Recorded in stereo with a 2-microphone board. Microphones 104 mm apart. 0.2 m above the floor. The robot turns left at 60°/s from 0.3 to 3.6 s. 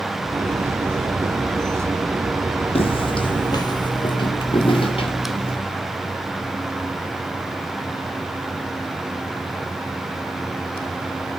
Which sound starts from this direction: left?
Footsteps, at 2.8 s.